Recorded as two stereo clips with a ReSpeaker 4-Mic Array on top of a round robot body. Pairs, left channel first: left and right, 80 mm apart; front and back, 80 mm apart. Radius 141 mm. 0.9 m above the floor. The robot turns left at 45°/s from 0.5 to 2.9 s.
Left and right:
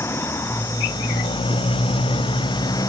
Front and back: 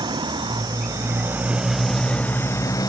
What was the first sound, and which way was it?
A motorcycle, 150° left.